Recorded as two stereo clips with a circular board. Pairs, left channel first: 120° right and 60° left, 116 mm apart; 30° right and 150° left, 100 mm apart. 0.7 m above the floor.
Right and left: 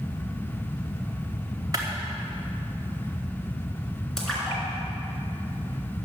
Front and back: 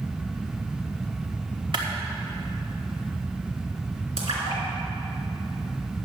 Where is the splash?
155° left, 3.5 m.